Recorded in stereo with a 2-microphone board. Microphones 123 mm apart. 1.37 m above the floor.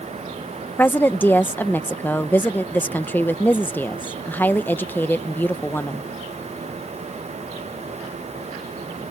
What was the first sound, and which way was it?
A woman speaking, 15° left (ahead or behind).